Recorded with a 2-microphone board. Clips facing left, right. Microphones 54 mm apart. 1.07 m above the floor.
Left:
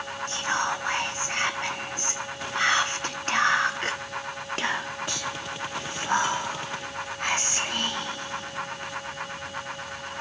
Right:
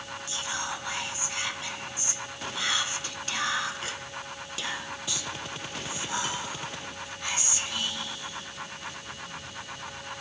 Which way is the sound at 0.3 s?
50° left (ahead or behind).